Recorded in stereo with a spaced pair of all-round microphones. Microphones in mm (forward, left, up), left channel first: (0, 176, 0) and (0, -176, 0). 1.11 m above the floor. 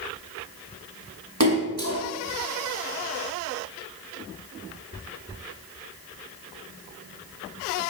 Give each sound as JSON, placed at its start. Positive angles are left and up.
{"t": 1.4, "sound": "a splash", "side_deg": -45, "distance_m": 2.5}